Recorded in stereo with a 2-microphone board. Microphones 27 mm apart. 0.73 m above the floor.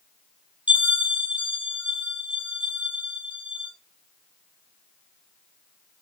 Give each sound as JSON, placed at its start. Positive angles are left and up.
{"t": 0.7, "sound": "a bell", "side_deg": -65, "distance_m": 1.1}